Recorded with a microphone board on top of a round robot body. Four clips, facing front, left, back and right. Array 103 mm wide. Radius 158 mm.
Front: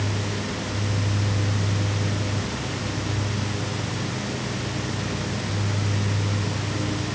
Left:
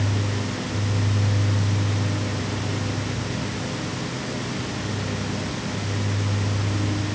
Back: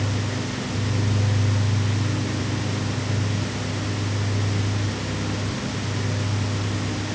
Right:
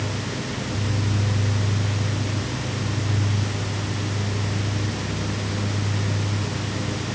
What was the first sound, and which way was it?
Only background noise.